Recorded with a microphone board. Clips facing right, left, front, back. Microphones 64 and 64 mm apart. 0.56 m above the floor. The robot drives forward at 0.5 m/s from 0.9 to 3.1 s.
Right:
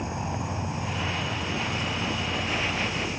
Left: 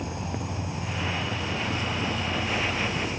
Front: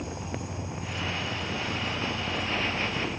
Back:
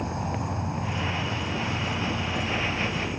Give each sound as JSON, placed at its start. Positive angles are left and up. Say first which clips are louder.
{"t": 0.0, "sound": "an insect", "louder": "right 2 dB, back 5 dB", "azimuth_deg": -155, "distance_m": 0.7}